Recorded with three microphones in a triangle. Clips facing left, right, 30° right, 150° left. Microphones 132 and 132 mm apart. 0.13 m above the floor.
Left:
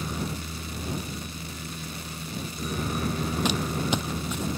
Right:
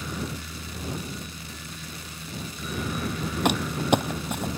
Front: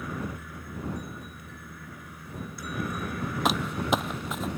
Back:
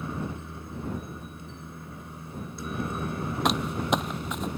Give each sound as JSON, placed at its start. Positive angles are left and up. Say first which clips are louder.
{"t": 0.0, "sound": "a helicopter", "louder": "left 1 dB, back 1 dB", "azimuth_deg": 105}
{"t": 3.5, "sound": "crumpling", "louder": "right 7 dB, even", "azimuth_deg": -120}